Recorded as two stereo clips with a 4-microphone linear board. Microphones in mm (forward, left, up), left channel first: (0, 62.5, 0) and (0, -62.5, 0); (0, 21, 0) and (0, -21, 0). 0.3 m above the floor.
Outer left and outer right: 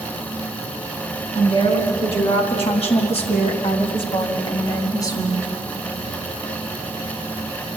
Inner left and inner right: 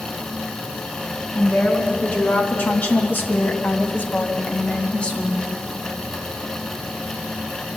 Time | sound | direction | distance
1.4 | a woman speaking | 45° left (ahead or behind) | 3 m